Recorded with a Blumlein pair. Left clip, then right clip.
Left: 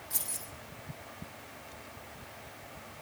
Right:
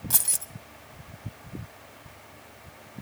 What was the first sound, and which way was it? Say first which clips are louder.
Keys jangling: right 10 dB; 50° right.